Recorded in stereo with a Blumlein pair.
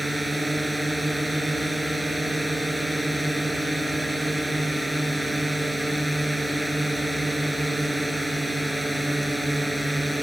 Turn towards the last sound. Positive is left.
turn(degrees=0)